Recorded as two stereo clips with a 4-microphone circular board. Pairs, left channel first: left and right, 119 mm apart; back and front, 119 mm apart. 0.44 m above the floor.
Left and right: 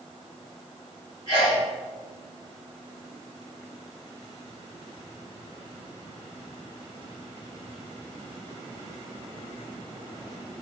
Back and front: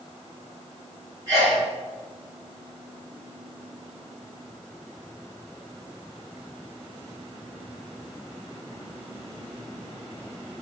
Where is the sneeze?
60° left, 1.9 m.